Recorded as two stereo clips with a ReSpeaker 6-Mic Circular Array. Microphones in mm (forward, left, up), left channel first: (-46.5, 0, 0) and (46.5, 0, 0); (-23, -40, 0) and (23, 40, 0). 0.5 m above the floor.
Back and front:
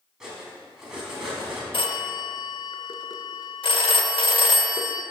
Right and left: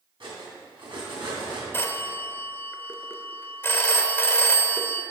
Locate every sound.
0.2 s cutlery clinking: 85° left, 2.5 m
1.7 s a phone ringing: 175° left, 0.7 m